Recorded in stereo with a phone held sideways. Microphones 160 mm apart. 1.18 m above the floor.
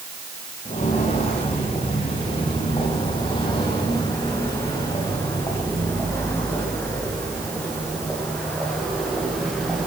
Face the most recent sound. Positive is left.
turn(degrees=0)  # may be behind; listen again after turning